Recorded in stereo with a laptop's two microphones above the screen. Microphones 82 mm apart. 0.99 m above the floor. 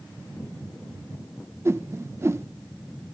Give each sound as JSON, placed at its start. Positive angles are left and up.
{"t": 1.6, "sound": "a whoosh", "side_deg": -30}